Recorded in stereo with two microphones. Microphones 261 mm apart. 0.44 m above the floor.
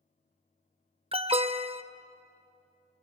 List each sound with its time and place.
1.1 s an alarm: 20° right (ahead or behind), 0.7 m